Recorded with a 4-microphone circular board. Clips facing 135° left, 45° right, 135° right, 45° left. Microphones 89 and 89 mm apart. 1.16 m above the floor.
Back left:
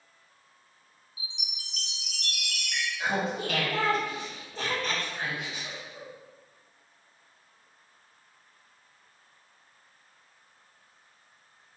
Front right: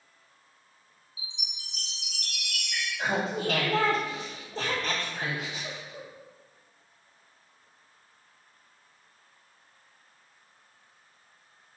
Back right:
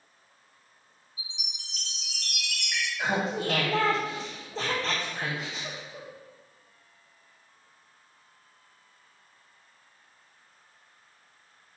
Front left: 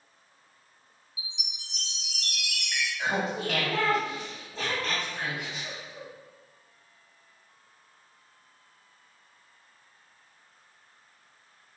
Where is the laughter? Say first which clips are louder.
Front right 1 dB, back right 1 dB; 80° right, 0.7 m.